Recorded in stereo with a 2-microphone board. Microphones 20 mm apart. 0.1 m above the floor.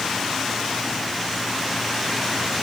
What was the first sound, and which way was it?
Only background noise.